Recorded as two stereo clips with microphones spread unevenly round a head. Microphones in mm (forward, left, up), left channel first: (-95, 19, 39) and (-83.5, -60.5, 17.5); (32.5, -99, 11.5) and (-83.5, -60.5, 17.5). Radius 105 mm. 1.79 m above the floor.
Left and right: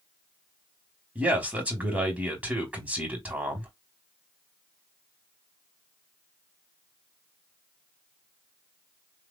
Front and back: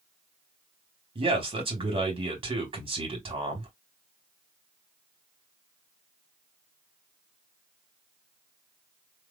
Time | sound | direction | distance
1.1 | a man speaking | 155° right | 2.5 m